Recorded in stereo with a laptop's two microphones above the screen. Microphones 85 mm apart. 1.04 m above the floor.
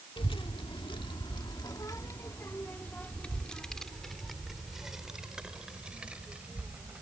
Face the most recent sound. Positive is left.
turn(degrees=-15)  # may be behind; listen again after turning